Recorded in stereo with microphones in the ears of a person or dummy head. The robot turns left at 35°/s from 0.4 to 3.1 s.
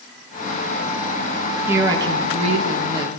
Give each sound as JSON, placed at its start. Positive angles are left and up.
{"t": 1.7, "sound": "a woman speaking", "azimuth_deg": -10, "distance_m": 2.0}